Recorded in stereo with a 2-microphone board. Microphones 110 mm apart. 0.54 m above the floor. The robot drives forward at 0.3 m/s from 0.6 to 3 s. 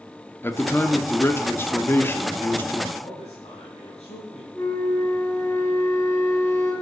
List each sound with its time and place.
0.4 s a man speaking: 20° left (ahead or behind), 0.8 m
3.0 s a man speaking: 80° left, 3.5 m
4.5 s a flute: 30° left (ahead or behind), 3 m